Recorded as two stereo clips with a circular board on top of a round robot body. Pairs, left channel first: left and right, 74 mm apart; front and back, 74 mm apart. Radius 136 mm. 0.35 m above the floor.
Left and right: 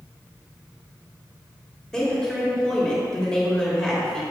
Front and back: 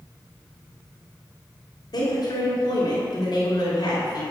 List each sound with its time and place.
1.9 s a woman speaking: 10° left, 2 m